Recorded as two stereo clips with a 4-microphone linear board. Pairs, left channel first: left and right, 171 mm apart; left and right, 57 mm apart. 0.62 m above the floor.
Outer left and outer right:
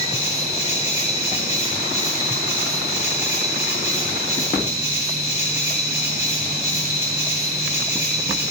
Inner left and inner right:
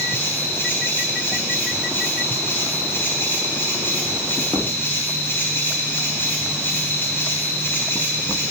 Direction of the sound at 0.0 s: 40° left (ahead or behind).